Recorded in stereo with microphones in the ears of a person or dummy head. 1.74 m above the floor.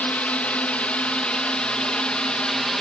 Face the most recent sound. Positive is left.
turn(degrees=0)  # may be behind; listen again after turning